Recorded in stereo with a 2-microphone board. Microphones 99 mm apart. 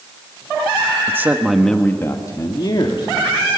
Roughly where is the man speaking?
Right.